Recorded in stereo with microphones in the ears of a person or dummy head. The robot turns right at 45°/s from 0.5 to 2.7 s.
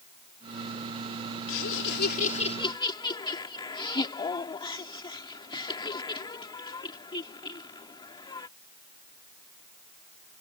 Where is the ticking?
No ticking in this recording.